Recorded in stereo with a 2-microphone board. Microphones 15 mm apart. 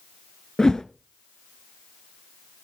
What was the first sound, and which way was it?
A whoosh, 40° left (ahead or behind).